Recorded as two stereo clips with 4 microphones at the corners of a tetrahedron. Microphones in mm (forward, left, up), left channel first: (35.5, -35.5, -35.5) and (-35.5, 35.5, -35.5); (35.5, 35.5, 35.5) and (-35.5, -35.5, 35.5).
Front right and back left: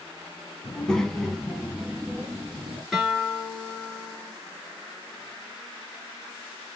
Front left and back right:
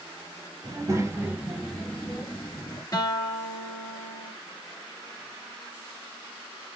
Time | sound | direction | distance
0.6 | a child speaking | 120° right | 1.0 m
2.9 | a guitar | 50° left | 1.8 m